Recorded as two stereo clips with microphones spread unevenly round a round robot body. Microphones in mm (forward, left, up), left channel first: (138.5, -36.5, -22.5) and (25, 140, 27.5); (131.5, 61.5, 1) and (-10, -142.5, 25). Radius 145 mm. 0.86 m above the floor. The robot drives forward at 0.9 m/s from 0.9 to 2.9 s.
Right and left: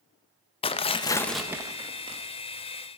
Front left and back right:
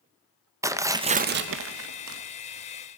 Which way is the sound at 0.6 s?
45° right.